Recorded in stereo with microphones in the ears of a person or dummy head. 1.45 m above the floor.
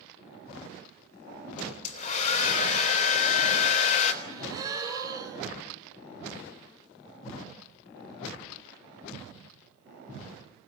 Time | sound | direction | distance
1.6 | a hair dryer | 35° left (ahead or behind) | 4 m
4.2 | a gasp | 30° right (ahead or behind) | 5 m